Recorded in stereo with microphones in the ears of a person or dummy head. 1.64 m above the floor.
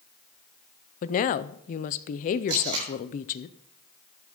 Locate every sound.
1.0 s a woman speaking: 40° left (ahead or behind), 0.5 m
2.5 s tape being pulled: 30° right (ahead or behind), 6.5 m